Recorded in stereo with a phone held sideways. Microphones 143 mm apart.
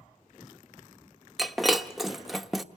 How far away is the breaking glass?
About 1.1 m.